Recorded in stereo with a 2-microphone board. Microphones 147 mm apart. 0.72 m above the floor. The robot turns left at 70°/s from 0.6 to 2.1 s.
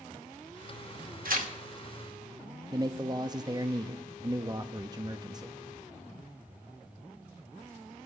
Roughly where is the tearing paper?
Right.